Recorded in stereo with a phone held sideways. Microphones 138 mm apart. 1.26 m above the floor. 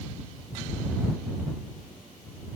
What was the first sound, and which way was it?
Only background noise.